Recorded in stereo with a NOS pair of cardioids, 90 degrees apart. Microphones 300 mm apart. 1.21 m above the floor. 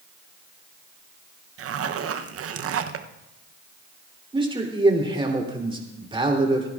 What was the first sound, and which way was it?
A zipper, 50° right.